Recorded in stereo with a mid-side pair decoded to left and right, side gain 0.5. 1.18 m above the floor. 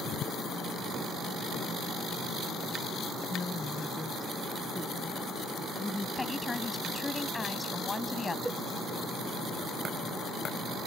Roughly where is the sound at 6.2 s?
Ahead.